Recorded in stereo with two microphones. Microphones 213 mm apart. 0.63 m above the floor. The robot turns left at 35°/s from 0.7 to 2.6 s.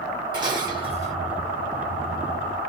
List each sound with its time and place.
0.3 s dishes clattering: 20° right (ahead or behind), 1.6 m; by 1.1 s 35° right (ahead or behind), 1.6 m